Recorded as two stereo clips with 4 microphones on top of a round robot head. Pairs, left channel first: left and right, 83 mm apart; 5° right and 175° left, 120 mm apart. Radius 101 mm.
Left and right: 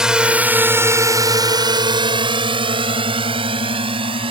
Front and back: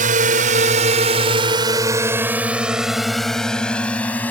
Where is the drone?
175° right; by 4.3 s 80° right.